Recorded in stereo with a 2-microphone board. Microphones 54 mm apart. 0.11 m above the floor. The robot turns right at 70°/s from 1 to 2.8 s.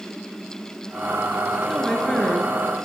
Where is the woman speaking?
5° right, 1.3 m; by 2.5 s 55° left, 1.3 m.